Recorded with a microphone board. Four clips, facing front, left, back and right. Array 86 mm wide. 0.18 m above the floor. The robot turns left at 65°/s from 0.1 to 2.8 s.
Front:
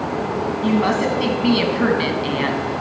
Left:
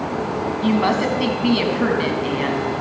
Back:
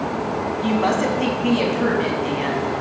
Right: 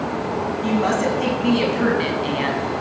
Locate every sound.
0.6 s a woman speaking: 90° left, 1.2 m; by 2.6 s 40° right, 1.2 m